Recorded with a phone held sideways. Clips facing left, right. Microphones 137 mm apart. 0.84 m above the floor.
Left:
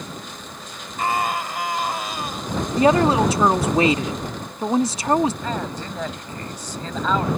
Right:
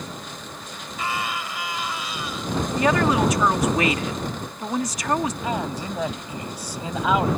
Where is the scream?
50° left (ahead or behind).